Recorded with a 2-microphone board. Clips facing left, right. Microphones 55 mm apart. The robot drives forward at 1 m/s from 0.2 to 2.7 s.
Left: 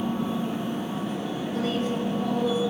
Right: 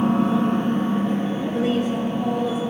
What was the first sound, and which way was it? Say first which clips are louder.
An engine running: right 8 dB; 75° right (ahead or behind).